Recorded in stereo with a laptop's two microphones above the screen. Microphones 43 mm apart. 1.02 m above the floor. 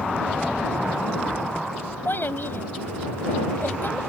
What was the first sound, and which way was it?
A child speaking, 55° left (ahead or behind).